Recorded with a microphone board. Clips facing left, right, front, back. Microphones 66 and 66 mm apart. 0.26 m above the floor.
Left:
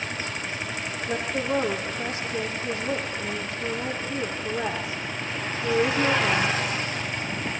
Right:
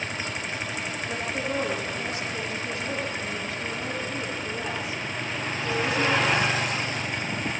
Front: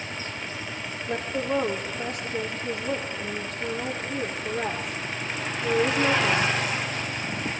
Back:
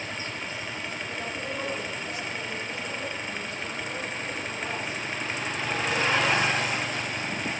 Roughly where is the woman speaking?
Ahead left.